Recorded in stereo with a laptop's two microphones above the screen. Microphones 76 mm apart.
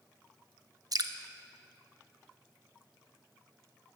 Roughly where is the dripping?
Right.